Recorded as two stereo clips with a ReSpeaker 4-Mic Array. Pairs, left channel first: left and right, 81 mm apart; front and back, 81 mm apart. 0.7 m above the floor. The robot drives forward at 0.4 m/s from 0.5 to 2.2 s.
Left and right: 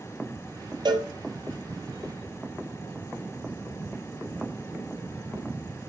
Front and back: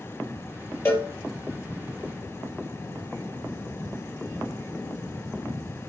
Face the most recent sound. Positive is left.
turn(degrees=-65)